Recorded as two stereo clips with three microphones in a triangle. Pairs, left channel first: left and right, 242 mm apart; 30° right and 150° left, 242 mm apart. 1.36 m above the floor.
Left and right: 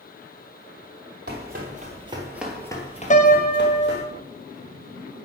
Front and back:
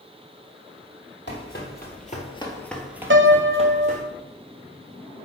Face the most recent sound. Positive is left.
turn(degrees=140)